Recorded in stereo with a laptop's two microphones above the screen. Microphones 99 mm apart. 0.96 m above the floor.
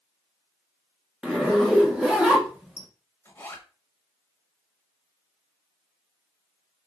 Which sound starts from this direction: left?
A zipper, at 3.2 s.